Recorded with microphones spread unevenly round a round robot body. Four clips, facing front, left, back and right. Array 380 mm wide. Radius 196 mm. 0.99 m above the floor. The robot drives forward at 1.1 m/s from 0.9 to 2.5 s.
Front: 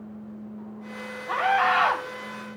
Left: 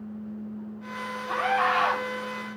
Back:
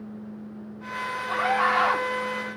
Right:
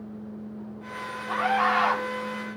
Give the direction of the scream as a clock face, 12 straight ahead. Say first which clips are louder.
Right 1 dB, front 2 dB; 12 o'clock.